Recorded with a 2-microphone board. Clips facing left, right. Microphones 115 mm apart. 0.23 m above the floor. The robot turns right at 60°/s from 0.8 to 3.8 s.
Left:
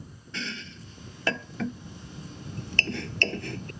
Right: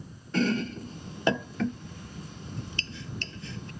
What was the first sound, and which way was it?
Chopping, 45° right (ahead or behind).